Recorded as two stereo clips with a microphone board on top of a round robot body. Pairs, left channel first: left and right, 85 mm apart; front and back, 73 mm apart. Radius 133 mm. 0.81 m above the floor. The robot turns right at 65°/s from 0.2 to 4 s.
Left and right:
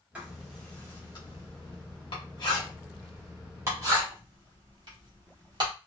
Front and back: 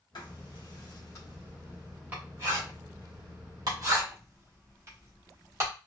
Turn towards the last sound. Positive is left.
turn(degrees=-125)